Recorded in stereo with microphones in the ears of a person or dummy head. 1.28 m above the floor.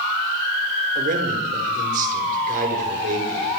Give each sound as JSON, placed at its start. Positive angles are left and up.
{"t": 0.9, "sound": "a man speaking", "side_deg": -40, "distance_m": 5.0}